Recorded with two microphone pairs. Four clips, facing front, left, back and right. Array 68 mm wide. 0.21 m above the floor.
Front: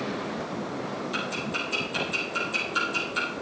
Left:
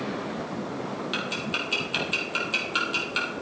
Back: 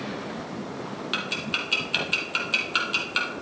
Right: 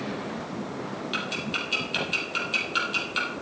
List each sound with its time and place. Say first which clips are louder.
1.1 s ticking: right 1 dB, back 3 dB; 160° left, 3 m